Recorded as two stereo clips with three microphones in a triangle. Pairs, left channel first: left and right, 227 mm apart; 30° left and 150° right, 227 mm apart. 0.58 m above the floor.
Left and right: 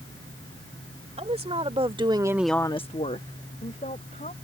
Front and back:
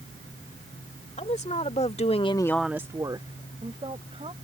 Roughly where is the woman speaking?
Ahead right.